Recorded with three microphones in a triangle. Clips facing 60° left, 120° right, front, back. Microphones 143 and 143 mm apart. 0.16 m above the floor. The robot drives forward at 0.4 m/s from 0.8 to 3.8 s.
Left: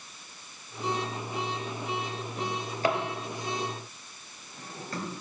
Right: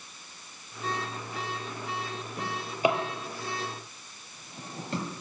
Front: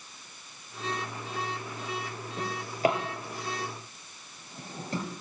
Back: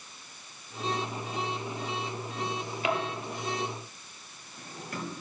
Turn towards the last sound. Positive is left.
turn(degrees=-60)